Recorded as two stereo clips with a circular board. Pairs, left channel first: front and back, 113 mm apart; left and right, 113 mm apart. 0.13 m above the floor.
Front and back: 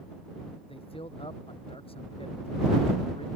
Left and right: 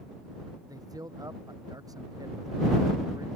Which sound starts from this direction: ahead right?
A man speaking, at 0.7 s.